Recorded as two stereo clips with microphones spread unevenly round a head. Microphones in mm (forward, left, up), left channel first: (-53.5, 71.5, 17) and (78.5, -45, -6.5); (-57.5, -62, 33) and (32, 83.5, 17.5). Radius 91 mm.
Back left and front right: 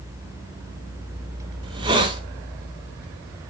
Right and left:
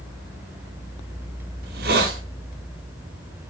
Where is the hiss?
25° left, 2 m.